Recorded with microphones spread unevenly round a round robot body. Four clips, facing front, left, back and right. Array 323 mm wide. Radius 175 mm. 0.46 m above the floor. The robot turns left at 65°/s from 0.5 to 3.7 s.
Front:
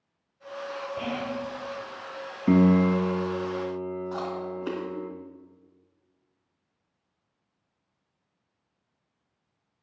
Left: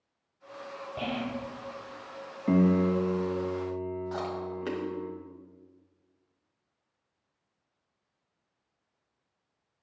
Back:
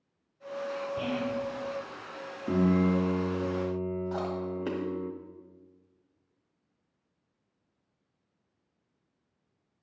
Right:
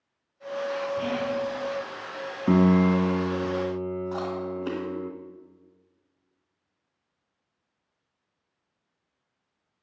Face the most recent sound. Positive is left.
turn(degrees=-175)